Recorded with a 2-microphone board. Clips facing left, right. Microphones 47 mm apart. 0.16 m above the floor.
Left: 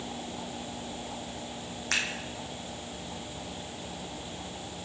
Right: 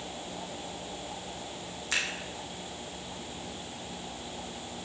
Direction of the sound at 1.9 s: 60° left (ahead or behind).